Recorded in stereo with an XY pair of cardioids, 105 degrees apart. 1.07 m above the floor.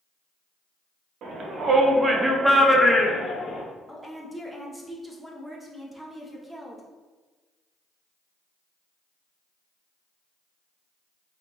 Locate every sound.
1.2 s a shout: 70° right, 1.2 m; by 3.6 s 40° left, 1.3 m
3.9 s a woman speaking: straight ahead, 1.0 m